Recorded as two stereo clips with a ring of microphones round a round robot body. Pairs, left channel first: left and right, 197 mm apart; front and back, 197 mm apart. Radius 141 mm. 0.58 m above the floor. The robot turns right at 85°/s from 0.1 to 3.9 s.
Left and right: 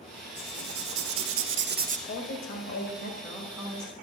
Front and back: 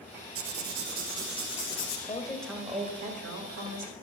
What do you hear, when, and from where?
0.3 s writing: 170° right, 2 m; by 2.0 s 35° right, 2 m
2.1 s a woman speaking: 55° left, 2.5 m; by 3.9 s 150° right, 2.5 m